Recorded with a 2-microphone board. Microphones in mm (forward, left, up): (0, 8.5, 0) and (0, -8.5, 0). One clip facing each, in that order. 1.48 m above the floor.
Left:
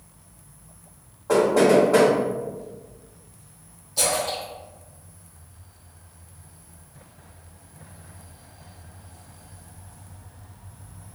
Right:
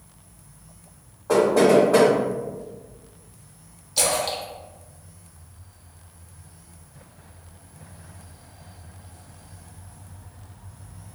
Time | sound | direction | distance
1.3 | knocking | 5° left (ahead or behind) | 1.6 m
4.0 | a splash | 45° right (ahead or behind) | 0.8 m